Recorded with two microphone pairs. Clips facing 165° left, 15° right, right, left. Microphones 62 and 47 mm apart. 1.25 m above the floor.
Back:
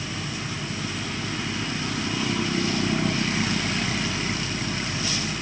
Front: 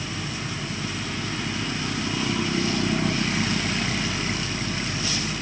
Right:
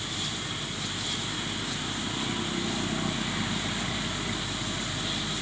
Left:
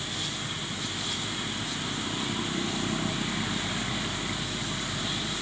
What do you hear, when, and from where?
Only background noise.